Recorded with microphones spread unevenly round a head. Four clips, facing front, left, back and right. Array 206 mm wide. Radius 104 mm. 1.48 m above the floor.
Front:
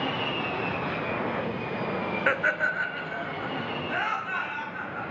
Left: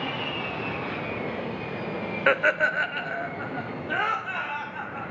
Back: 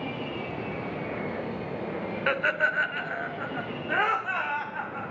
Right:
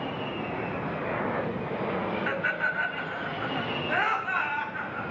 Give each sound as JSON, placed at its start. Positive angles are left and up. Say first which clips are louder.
{"t": 2.3, "sound": "laughter", "louder": "left 6 dB, back 1 dB", "azimuth_deg": 85, "distance_m": 0.6}